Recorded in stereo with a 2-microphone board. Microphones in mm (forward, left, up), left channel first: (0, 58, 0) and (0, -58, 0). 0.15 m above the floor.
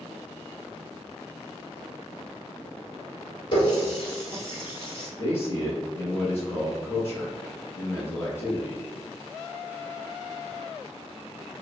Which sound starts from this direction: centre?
A man speaking, at 5.2 s.